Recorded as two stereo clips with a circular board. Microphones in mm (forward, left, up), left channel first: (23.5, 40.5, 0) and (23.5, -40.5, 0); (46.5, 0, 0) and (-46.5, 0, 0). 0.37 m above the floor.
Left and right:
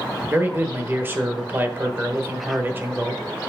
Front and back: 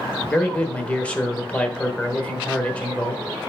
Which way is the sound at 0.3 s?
60° right.